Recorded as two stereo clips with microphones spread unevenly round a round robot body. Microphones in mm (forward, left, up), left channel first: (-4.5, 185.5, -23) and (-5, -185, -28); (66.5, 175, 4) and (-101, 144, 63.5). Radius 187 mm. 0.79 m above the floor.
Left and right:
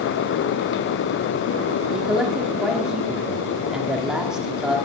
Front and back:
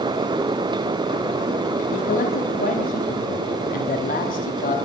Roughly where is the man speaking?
Ahead.